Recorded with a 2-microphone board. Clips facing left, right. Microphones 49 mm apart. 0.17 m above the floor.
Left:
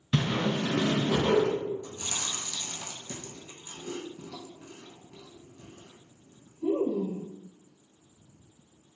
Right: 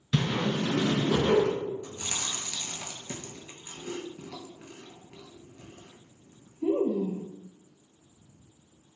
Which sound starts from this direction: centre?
A whoosh, at 0.1 s.